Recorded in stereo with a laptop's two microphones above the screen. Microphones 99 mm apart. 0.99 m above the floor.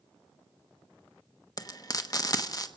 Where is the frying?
35° left (ahead or behind), 1.1 m.